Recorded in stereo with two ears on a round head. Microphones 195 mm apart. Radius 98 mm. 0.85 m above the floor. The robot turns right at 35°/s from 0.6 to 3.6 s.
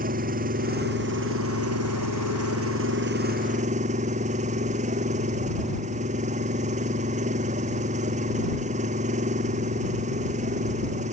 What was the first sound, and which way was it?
An engine running, 140° right.